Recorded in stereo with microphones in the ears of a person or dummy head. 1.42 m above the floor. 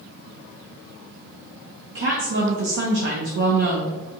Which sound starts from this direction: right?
A woman speaking, at 1.9 s.